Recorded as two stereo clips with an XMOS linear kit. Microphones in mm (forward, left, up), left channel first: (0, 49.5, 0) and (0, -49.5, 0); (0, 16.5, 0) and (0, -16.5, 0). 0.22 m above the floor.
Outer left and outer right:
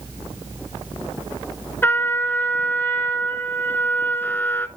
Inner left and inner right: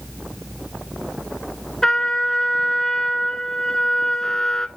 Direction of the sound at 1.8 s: 20° left (ahead or behind).